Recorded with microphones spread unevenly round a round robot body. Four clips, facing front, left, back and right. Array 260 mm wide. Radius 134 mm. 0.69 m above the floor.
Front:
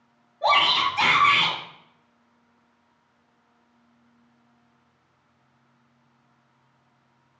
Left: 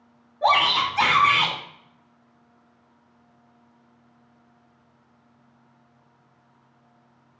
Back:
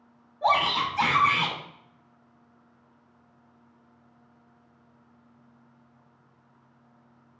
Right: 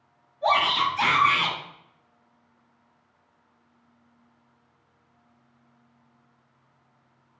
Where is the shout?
70° left, 2.5 m.